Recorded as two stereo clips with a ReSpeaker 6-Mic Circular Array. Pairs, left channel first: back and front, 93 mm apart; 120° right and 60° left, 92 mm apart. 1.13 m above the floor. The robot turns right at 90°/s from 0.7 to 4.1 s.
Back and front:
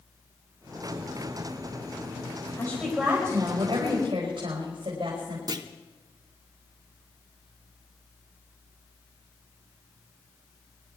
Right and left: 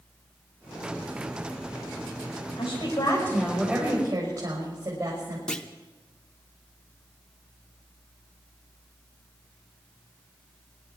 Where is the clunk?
40° right, 1.0 m.